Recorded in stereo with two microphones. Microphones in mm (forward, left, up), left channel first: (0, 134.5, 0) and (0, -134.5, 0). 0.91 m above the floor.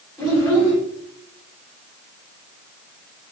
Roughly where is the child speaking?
Centre.